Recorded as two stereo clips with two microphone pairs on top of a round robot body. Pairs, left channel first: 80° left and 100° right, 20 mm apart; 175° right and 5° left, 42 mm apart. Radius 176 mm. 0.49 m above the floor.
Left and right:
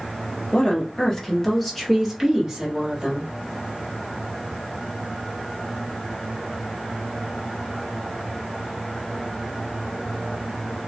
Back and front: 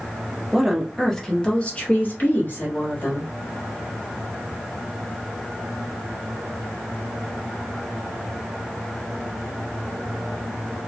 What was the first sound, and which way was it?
A woman speaking, 80° left.